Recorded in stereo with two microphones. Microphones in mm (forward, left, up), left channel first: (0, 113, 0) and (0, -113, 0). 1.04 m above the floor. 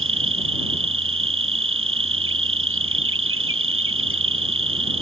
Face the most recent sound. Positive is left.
turn(degrees=-70)  # may be behind; listen again after turning